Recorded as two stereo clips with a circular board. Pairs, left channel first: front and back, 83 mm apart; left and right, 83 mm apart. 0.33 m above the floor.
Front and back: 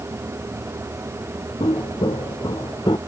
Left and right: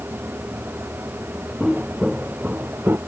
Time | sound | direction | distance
1.6 | footsteps | straight ahead | ?